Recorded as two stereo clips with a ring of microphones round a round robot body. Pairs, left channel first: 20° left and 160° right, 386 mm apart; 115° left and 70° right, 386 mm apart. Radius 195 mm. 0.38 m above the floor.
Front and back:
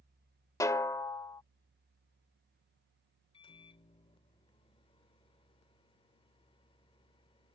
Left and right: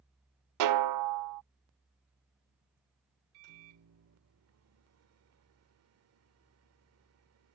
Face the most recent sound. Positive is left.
turn(degrees=-45)